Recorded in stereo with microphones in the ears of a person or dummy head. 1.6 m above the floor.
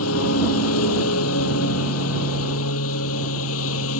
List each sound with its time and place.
0.0 s a lawn mower: 85° left